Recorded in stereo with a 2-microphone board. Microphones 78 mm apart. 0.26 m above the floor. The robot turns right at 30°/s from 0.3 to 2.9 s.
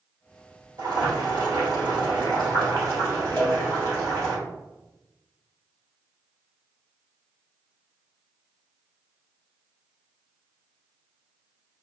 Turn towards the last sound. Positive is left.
turn(degrees=20)  # may be behind; listen again after turning